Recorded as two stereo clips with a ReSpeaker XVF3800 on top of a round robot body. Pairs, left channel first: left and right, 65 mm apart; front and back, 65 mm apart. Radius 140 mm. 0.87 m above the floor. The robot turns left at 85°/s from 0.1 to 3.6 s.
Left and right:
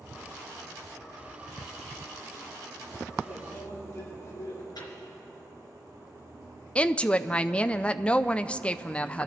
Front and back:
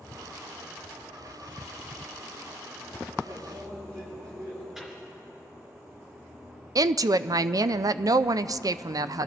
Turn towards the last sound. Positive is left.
turn(degrees=160)